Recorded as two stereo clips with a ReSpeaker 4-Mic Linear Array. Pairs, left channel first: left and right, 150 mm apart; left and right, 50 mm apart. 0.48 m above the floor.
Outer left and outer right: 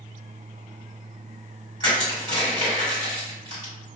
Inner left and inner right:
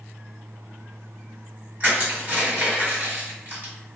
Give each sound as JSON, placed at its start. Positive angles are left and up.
{"t": 1.8, "sound": "crushing", "side_deg": -35, "distance_m": 1.8}